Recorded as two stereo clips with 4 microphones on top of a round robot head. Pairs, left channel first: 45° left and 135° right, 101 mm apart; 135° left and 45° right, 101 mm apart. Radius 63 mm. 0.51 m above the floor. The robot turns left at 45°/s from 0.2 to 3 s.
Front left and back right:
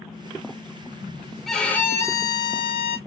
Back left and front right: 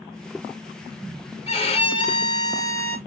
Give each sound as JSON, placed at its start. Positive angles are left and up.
{"t": 1.5, "sound": "a violin", "azimuth_deg": 130, "distance_m": 1.3}